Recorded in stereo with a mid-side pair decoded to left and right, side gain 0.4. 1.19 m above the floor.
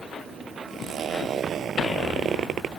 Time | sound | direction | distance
0.7 | a zipper | 65° right | ?